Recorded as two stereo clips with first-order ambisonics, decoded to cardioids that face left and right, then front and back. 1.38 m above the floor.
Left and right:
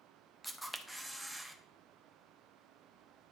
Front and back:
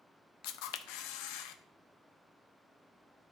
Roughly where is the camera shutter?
Ahead.